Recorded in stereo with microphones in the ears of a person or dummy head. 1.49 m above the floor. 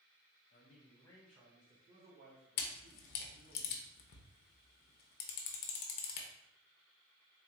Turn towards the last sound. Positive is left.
turn(degrees=60)  # may be behind; listen again after turning